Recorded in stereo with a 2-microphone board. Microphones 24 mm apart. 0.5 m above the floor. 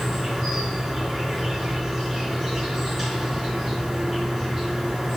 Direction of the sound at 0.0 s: 5° right (ahead or behind).